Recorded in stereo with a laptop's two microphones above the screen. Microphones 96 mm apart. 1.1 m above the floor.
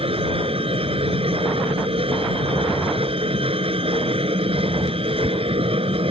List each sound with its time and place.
0.0 s a machine running: 85° right